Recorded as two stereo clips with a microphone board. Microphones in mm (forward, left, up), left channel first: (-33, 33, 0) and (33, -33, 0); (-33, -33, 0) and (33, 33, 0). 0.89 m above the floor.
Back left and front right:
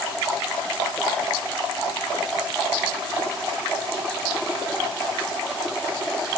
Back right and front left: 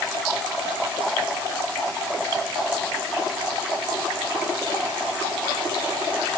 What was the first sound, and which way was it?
Only background noise.